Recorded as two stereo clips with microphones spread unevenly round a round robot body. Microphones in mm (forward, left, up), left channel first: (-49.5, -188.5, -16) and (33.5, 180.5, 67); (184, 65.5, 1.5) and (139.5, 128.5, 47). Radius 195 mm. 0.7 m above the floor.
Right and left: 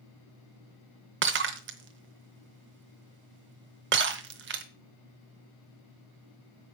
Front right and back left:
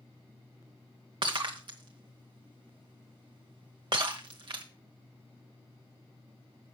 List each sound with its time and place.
1.2 s breaking glass: 140° left, 0.9 m